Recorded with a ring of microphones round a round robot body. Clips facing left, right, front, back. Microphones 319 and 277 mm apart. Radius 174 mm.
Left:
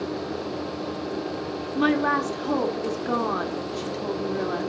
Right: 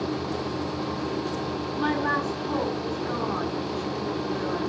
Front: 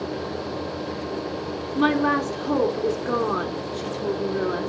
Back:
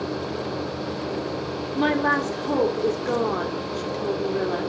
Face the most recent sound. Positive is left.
turn(degrees=75)